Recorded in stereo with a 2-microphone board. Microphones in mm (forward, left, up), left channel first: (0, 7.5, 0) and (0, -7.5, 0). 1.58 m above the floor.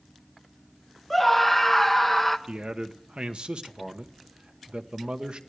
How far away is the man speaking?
About 1.0 m.